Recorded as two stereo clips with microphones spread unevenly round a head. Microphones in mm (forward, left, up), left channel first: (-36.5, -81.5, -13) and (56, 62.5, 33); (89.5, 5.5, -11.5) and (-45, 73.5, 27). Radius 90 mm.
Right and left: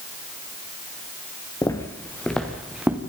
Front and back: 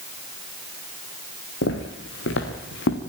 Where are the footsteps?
50° right, 3.5 m; by 3.0 s 20° right, 3.5 m.